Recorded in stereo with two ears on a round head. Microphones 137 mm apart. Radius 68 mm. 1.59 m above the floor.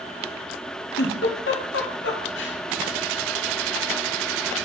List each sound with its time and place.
1.0 s a giggle: 85° left, 0.9 m